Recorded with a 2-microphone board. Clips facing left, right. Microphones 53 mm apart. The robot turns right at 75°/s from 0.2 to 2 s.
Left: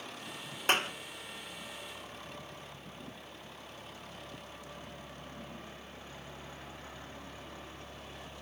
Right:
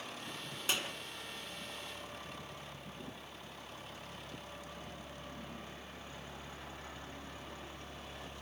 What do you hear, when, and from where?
0.7 s a clap: 50° left (ahead or behind), 1.6 m; by 0.9 s 45° left (ahead or behind), 1.6 m